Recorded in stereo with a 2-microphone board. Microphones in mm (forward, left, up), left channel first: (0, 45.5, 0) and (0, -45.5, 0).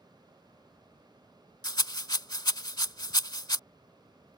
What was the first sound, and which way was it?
A rattle, 50° left (ahead or behind).